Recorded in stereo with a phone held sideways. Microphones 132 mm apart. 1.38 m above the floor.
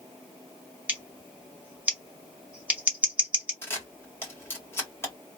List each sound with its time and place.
0.9 s scissors: 15° right (ahead or behind), 2 m
3.6 s a camera shutter: 15° left (ahead or behind), 2.0 m